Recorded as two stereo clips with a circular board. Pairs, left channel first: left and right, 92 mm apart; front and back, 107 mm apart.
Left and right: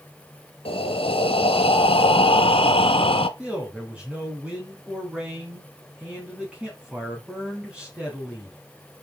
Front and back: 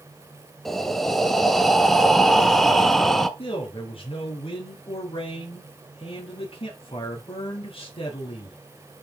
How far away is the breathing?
About 0.9 m.